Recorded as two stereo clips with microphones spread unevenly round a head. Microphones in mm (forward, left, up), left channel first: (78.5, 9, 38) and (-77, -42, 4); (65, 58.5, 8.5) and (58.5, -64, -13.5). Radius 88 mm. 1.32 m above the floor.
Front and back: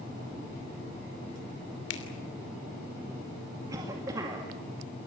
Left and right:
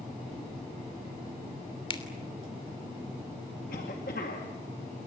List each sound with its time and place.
1.9 s a finger snap: 40° left, 3 m
3.7 s a cough: 125° left, 2 m